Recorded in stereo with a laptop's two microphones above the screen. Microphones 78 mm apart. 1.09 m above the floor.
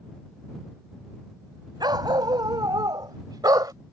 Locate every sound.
1.8 s a dog barking: 70° right (ahead or behind); by 3.7 s 60° right (ahead or behind)